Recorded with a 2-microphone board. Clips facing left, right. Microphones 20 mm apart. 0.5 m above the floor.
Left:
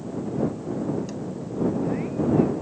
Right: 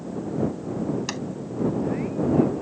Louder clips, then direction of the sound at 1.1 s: Right 3 dB; 75° right (ahead or behind).